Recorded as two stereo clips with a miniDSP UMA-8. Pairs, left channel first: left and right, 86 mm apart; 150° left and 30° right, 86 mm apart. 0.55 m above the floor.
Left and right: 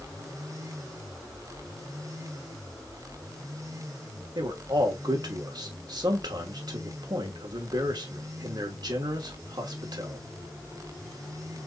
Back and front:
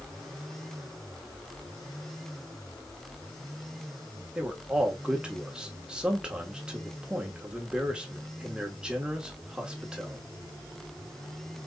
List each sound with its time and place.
4.3 s a man speaking: 105° right, 1.1 m